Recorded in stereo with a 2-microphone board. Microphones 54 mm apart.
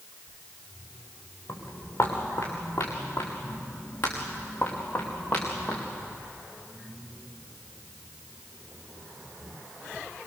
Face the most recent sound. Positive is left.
turn(degrees=25)  # may be behind; listen again after turning